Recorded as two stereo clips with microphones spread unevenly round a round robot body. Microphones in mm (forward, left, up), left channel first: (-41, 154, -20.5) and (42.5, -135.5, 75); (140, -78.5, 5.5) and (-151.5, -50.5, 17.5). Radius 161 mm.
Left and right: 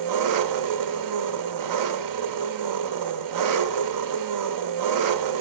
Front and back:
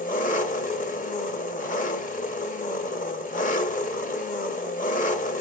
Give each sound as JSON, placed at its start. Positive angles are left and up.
{"t": 0.0, "sound": "an engine running", "azimuth_deg": -55, "distance_m": 0.8}